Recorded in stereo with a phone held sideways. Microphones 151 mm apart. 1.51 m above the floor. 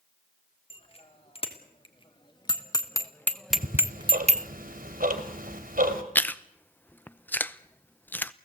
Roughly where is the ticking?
Right.